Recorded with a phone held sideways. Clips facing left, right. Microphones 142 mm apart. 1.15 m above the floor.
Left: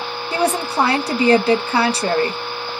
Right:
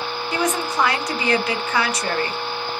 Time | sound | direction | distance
0.3 | a woman speaking | 30° left (ahead or behind) | 0.7 m